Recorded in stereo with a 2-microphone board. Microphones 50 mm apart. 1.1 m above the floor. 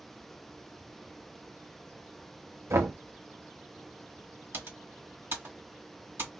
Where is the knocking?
70° right (ahead or behind), 0.7 m.